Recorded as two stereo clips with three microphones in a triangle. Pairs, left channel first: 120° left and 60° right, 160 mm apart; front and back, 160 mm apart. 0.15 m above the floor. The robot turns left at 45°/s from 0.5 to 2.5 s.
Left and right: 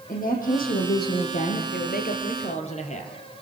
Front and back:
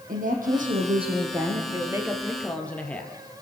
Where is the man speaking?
120° left, 4 m; by 3.2 s 80° left, 4 m.